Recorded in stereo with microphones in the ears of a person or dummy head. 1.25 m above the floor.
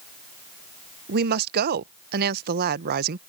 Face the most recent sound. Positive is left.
turn(degrees=-55)  # may be behind; listen again after turning